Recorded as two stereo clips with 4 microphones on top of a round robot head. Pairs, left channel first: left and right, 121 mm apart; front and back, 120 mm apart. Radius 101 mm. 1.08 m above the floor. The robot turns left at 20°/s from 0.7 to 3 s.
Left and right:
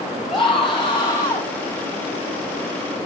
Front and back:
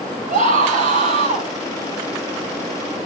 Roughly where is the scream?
Behind.